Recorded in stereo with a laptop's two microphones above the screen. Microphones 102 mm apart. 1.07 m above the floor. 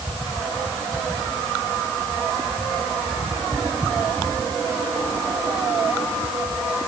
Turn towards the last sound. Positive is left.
No sound to turn to.